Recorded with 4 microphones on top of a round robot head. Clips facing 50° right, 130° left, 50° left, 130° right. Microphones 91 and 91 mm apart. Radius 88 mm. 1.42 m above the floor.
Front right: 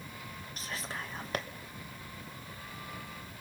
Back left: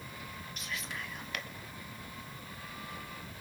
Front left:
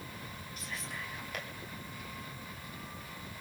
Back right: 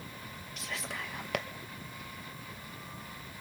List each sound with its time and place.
0.6 s whispering: 105° right, 1.8 m